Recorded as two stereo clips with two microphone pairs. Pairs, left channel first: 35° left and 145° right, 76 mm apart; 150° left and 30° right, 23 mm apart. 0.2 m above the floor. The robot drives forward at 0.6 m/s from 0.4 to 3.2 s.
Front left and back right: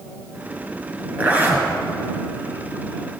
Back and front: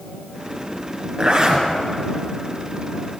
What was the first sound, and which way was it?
A zipper, 80° right.